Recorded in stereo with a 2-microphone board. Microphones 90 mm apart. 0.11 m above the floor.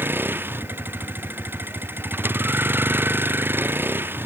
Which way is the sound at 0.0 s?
25° right (ahead or behind).